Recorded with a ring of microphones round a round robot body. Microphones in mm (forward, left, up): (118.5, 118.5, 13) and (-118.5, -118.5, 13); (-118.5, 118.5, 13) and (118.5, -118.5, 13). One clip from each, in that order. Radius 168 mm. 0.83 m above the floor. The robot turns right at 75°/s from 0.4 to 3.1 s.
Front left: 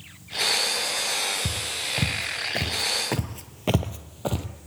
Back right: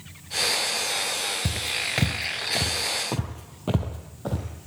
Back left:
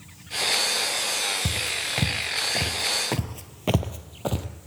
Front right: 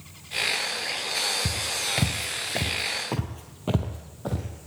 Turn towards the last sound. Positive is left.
turn(degrees=90)